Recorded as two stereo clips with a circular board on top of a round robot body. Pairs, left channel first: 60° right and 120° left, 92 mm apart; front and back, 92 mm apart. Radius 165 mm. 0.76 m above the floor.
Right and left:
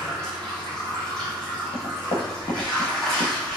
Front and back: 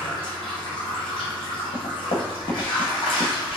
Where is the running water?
20° left, 1.7 m.